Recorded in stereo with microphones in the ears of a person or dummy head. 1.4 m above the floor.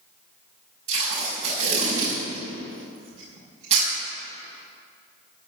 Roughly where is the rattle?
I don't hear a rattle.